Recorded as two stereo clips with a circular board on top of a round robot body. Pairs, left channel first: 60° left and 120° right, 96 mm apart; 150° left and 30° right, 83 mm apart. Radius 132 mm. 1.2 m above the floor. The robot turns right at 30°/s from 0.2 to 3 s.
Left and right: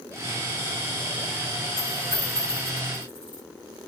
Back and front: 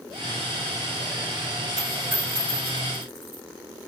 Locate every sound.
1.8 s a dropped coin: 25° left, 1.0 m; by 3.4 s 65° left, 1.0 m